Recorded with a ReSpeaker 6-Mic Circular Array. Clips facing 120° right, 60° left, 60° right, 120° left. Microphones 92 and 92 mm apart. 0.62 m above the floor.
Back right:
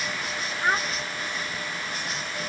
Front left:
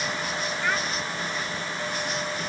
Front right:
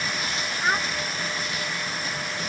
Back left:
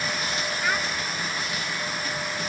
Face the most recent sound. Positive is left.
turn(degrees=-95)